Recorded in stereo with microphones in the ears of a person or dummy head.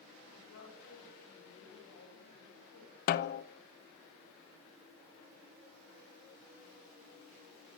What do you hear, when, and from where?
0.3 s a woman speaking: 75° left (ahead or behind), 9.5 m; by 3.0 s 90° left, 9.5 m
3.1 s a snare drum: 55° left (ahead or behind), 1.0 m